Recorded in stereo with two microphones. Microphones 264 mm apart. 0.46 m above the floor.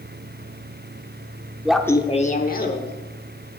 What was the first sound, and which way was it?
Laughter, 5° right (ahead or behind).